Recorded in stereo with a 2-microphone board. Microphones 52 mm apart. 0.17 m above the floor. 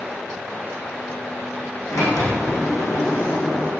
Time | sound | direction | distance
1.9 | a sliding door | 80° left | 5.5 m